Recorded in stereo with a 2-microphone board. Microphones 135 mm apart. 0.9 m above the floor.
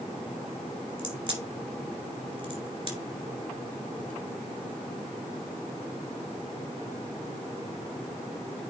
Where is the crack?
40° right (ahead or behind), 2.5 m.